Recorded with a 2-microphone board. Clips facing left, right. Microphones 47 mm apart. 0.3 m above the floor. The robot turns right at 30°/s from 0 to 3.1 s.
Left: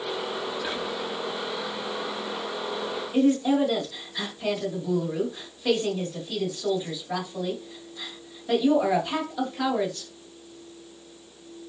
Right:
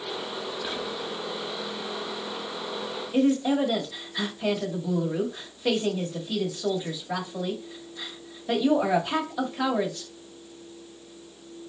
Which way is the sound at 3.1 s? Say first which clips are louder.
Left 1 dB; 10° right (ahead or behind).